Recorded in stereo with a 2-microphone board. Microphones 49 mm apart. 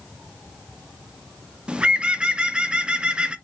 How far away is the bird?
About 0.5 m.